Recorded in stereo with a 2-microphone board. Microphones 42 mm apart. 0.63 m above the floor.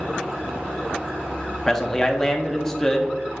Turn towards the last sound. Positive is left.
turn(degrees=10)  # may be behind; listen again after turning